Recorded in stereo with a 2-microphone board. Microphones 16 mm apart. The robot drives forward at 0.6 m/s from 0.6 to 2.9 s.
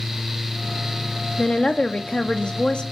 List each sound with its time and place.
1.4 s a woman speaking: 60° left (ahead or behind), 1.4 m